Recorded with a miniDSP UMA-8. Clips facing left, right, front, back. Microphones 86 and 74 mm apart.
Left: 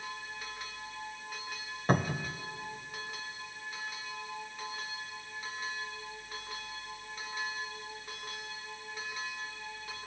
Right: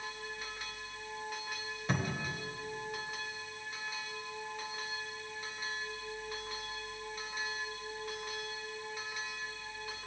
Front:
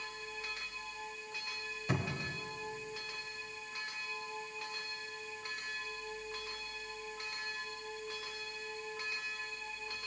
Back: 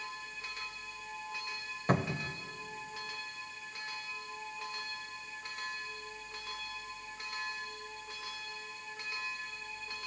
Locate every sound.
1.9 s a cupboard door: 140° left, 0.8 m